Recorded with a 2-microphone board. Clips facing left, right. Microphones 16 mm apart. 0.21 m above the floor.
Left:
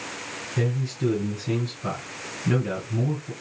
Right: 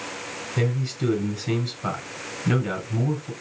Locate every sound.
0.6 s a man speaking: 40° right (ahead or behind), 2 m